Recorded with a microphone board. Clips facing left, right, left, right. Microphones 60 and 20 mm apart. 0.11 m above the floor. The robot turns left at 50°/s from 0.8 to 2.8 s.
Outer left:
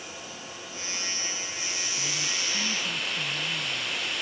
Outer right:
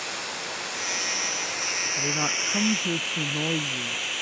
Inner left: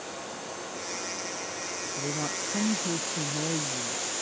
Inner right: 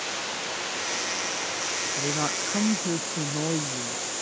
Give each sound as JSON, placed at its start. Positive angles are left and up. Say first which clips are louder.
{"t": 0.0, "sound": "running water", "louder": "outer right 7 dB, inner right 7 dB", "azimuth_deg": -75}
{"t": 2.0, "sound": "a woman speaking", "louder": "outer right 6 dB, inner right 2 dB", "azimuth_deg": -50}